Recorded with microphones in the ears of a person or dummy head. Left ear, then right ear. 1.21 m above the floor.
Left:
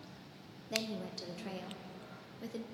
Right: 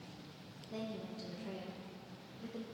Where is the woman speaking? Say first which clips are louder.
Left 6 dB; 85° left, 0.6 m.